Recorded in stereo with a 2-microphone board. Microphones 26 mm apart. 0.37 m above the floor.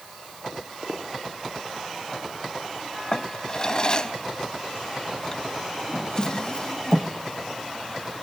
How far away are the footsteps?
About 4.5 m.